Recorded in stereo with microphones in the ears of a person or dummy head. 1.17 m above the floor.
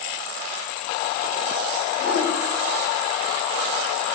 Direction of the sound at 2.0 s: 70° left (ahead or behind).